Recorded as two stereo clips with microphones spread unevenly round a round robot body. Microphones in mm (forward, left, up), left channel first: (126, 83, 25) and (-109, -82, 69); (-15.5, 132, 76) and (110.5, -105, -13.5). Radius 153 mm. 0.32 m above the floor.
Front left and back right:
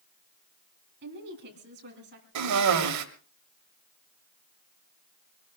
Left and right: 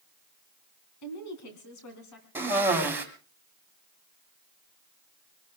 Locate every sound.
1.0 s a woman speaking: 160° left, 3 m
2.4 s a cough: 130° right, 2 m